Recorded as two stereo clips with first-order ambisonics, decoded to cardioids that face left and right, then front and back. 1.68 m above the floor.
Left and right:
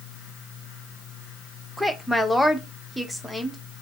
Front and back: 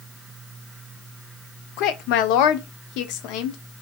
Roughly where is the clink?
No clink in this recording.